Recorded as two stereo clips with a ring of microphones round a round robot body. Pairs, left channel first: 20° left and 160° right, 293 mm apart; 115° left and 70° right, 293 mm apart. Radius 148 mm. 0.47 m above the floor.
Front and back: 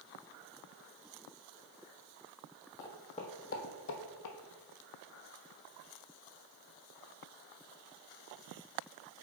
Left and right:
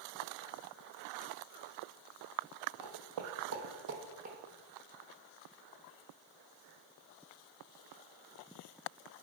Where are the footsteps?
55° right, 1.3 m; by 4.4 s straight ahead, 1.0 m.